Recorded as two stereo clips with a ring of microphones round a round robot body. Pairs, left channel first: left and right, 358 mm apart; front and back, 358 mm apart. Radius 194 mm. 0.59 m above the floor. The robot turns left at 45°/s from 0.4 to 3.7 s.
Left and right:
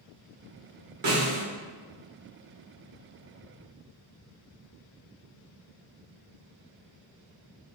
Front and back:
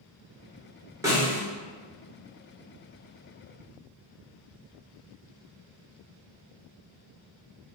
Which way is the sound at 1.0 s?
100° right.